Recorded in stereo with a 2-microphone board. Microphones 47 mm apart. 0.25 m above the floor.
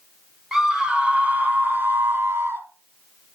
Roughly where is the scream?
Centre.